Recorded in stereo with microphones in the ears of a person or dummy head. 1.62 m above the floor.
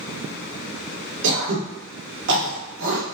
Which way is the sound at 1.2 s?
70° right (ahead or behind).